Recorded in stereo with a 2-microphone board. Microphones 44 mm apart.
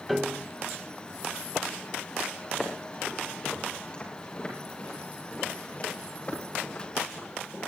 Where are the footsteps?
15° left (ahead or behind), 8.5 m; by 7.7 s 40° left (ahead or behind), 13.5 m.